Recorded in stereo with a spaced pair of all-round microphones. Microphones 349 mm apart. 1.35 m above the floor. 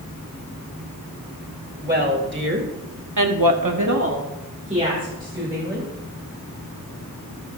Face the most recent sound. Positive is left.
turn(degrees=-5)  # may be behind; listen again after turning